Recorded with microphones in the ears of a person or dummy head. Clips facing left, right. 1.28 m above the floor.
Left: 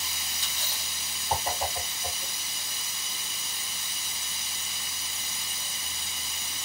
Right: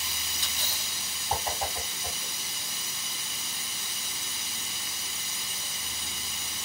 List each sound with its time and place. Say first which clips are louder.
1.3 s a whoosh: left 2 dB; 60° left (ahead or behind), 1.6 m